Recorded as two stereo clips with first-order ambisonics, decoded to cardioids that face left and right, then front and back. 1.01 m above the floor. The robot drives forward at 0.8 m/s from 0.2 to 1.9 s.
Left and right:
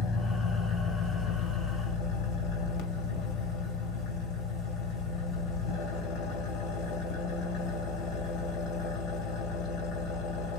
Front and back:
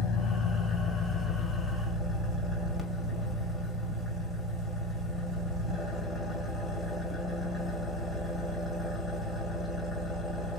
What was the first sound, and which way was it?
An engine running, 45° left.